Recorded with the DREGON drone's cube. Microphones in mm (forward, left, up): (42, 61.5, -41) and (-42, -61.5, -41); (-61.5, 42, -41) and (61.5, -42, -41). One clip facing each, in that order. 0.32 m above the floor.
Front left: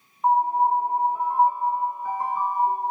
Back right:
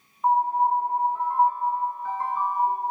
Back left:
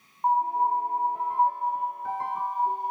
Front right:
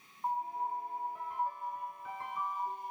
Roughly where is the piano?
Behind left.